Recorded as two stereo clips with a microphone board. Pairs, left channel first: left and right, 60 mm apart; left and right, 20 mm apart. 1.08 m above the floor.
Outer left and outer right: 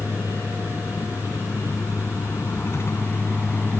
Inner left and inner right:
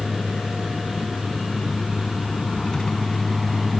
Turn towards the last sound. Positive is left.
turn(degrees=30)  # may be behind; listen again after turning